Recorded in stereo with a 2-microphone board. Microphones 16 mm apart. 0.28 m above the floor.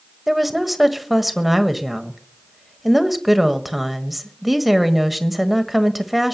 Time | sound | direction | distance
0.3 | a woman speaking | 10° right (ahead or behind) | 1.4 m